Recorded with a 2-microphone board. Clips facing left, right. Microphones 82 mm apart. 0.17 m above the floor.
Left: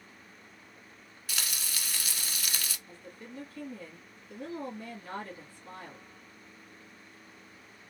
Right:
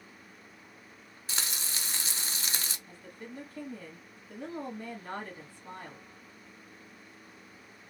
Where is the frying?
30° right (ahead or behind), 0.5 m.